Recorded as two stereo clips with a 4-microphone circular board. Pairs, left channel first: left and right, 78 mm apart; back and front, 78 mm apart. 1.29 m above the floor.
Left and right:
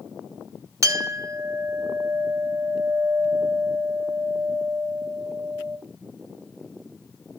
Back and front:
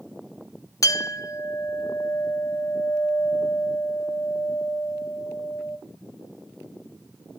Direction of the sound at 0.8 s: 135° right.